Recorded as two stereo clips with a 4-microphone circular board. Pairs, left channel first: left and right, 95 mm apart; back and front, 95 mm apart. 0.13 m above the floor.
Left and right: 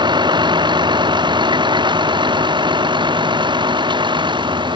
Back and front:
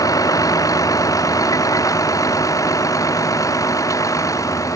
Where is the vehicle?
130° right; by 4.8 s 125° right.